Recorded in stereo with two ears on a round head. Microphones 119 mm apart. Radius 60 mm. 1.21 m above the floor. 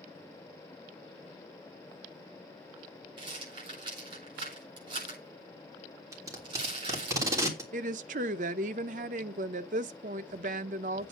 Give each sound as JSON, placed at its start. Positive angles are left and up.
{"t": 3.2, "sound": "a rattle", "side_deg": -40, "distance_m": 8.0}
{"t": 6.1, "sound": "tape being pulled", "side_deg": -25, "distance_m": 3.0}
{"t": 7.7, "sound": "a woman speaking", "side_deg": -65, "distance_m": 0.8}